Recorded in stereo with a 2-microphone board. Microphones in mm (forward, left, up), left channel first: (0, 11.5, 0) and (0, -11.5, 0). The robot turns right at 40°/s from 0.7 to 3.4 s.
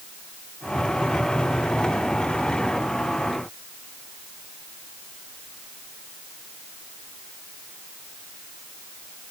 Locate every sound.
Only background noise.